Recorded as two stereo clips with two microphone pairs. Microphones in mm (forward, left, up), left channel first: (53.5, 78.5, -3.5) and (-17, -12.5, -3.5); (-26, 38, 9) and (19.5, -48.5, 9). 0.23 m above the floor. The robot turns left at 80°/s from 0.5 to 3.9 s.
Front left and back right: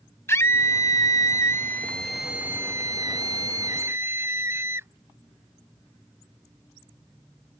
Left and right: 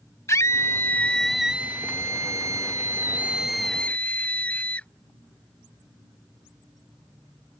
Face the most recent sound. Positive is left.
turn(degrees=-175)